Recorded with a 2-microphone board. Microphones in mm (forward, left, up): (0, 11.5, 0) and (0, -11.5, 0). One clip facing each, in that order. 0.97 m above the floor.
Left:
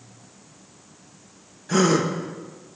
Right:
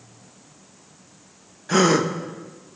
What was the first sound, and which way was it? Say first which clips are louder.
A gasp: right 2 dB; 15° right (ahead or behind).